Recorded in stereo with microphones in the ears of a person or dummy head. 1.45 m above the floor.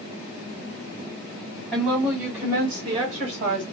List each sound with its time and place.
1.7 s a woman speaking: centre (ahead or behind), 1.7 m; by 3.6 s 40° right (ahead or behind), 1.6 m